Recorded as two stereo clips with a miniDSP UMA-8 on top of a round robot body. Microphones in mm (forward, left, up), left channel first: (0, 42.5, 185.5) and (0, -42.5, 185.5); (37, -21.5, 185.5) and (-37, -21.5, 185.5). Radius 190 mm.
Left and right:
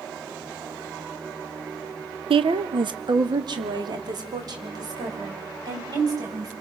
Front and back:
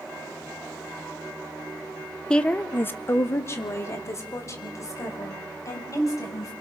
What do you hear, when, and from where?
2.3 s a woman speaking: 80° right, 1.1 m; by 6.5 s 45° right, 7 m